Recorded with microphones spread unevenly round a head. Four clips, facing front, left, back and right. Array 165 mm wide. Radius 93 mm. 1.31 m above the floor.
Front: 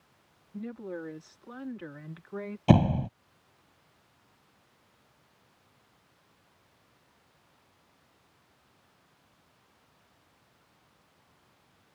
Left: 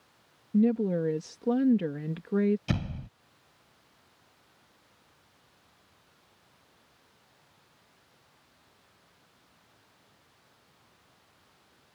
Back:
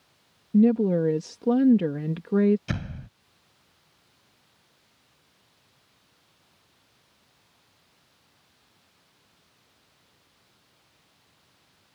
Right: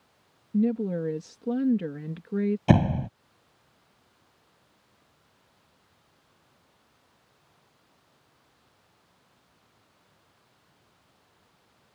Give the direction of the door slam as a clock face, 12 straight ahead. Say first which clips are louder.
Right 12 dB, front 13 dB; 2 o'clock.